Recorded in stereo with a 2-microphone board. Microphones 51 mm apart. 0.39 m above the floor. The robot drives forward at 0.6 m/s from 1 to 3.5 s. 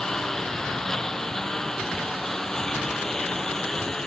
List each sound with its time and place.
0.0 s a lawn mower: 10° left (ahead or behind)